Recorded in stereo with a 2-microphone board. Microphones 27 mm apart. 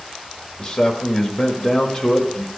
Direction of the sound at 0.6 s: 20° left (ahead or behind).